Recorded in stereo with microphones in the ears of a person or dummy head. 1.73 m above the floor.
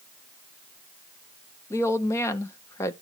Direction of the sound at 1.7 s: 20° left (ahead or behind).